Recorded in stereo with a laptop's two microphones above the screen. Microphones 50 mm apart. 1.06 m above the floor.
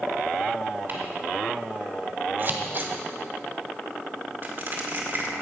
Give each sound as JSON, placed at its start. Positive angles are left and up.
{"t": 0.9, "sound": "ticking", "side_deg": -45, "distance_m": 2.5}
{"t": 2.4, "sound": "scissors", "side_deg": -45, "distance_m": 1.1}
{"t": 4.4, "sound": "crushing", "side_deg": -45, "distance_m": 2.0}